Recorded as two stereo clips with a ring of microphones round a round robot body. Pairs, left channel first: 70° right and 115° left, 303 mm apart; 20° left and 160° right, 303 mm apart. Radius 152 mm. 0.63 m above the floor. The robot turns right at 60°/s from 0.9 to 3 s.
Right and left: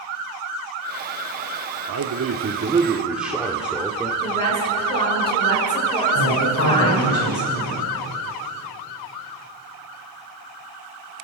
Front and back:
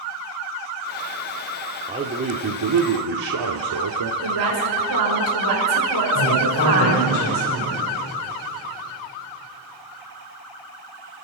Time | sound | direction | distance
1.9 | a man speaking | 130° left | 1.3 m
4.2 | a woman speaking | 140° right | 6.5 m
6.2 | a woman speaking | 25° right | 3 m